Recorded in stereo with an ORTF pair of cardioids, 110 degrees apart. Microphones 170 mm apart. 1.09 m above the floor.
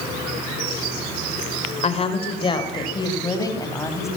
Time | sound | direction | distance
1.8 | a woman speaking | 40° left | 3.5 m